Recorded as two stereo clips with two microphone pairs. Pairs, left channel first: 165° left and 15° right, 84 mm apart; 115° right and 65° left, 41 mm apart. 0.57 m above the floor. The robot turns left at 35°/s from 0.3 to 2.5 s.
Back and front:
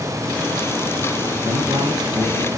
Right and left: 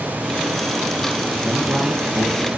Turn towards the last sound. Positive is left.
turn(degrees=-40)